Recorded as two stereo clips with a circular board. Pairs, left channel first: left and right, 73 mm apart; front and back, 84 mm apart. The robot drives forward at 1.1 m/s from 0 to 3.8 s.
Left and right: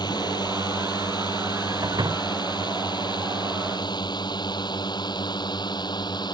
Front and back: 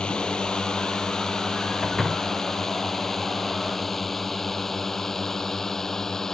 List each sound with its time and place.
0.0 s a drone: 80° left; by 6.3 s 85° left
1.8 s a door slam: 90° right